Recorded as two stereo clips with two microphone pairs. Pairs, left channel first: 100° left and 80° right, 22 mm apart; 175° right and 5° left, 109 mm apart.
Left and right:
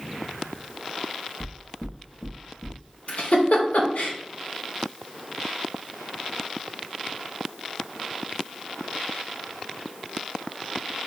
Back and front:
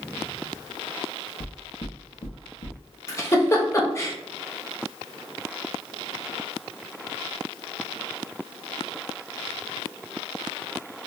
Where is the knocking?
165° right, 0.8 m.